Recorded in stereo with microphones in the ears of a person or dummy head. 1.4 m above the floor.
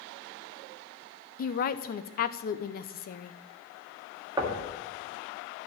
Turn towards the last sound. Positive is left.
turn(degrees=-20)  # may be behind; listen again after turning